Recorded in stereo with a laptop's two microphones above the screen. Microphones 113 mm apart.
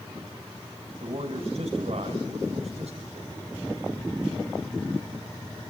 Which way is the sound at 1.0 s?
55° right (ahead or behind).